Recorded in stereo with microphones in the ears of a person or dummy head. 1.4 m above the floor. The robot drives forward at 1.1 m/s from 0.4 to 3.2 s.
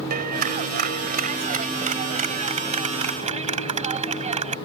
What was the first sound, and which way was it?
A clap, 40° right (ahead or behind).